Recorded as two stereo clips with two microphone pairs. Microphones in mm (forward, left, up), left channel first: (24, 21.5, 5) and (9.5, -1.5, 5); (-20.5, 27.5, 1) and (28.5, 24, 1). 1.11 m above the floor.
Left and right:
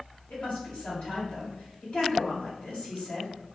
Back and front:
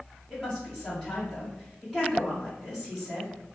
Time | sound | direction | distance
0.3 | a woman speaking | 100° left | 1.6 m